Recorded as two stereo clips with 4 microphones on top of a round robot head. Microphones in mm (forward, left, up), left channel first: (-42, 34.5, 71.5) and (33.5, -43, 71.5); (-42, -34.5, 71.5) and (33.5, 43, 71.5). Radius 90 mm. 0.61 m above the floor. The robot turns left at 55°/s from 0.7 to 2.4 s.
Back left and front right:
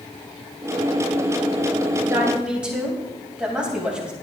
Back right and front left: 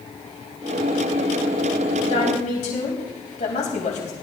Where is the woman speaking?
105° right, 3.5 m; by 4.1 s 125° right, 3.5 m.